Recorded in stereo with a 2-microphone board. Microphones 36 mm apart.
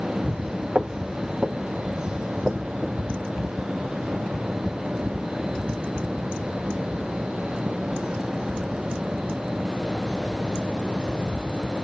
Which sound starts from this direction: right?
Footsteps, at 0.8 s.